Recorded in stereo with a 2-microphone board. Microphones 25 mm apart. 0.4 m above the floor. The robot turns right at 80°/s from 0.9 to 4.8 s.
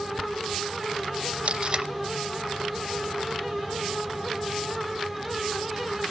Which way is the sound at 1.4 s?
60° right (ahead or behind).